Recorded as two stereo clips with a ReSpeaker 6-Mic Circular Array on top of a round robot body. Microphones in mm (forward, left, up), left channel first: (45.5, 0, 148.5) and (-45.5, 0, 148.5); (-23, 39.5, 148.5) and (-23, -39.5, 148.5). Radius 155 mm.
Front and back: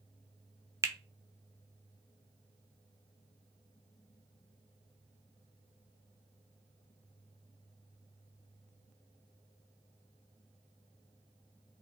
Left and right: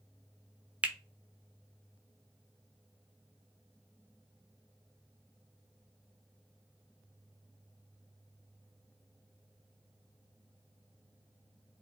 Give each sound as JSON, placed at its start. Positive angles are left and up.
{"t": 0.8, "sound": "a finger snap", "azimuth_deg": -150, "distance_m": 0.5}